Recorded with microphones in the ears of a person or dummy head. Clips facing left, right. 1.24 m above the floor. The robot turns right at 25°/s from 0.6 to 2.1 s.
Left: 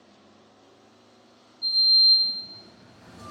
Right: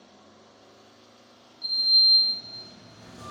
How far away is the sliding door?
About 1.2 m.